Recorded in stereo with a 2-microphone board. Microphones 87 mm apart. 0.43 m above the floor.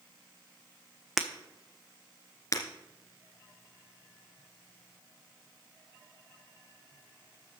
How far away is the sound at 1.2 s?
About 1.1 m.